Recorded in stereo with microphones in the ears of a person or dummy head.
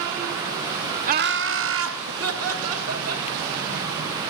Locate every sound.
1.1 s laughter: 40° right (ahead or behind), 0.5 m; by 3.3 s 80° right, 2.5 m